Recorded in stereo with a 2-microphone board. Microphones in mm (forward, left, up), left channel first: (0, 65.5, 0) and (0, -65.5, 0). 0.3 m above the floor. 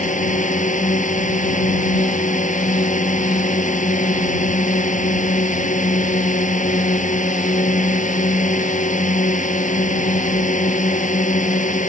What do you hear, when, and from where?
0.0 s a drone: 70° left (ahead or behind)